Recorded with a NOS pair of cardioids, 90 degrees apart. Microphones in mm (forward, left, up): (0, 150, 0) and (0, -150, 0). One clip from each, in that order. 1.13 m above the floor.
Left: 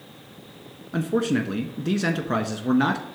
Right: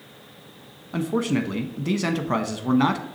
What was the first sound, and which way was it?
A man speaking, 10° right.